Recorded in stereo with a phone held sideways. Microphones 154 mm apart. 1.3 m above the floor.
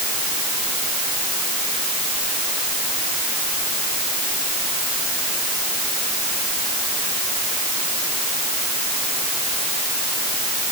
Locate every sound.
Only background noise.